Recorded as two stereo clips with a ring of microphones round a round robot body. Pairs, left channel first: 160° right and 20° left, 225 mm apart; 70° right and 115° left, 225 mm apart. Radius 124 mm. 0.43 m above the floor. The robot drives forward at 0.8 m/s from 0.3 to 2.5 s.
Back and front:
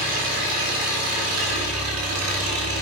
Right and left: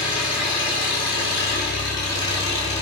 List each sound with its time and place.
0.0 s an engine running: 5° left, 5.5 m